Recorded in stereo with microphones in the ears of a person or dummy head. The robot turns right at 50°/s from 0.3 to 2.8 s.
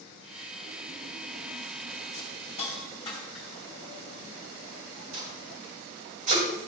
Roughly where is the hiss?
Left.